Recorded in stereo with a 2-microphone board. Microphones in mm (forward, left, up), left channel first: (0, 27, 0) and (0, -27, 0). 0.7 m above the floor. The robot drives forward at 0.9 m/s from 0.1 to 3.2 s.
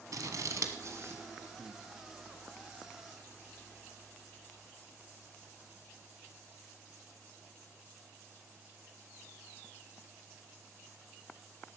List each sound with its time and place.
0.1 s scissors: 70° right (ahead or behind), 1.2 m; by 1.2 s 45° right (ahead or behind), 1.6 m
1.6 s breathing: 40° right (ahead or behind), 1.0 m; by 1.8 s 45° right (ahead or behind), 0.9 m